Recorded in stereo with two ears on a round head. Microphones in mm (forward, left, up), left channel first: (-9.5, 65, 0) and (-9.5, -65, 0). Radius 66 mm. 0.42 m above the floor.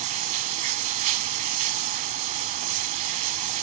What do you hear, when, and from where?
0.0 s running water: 50° right (ahead or behind), 0.7 m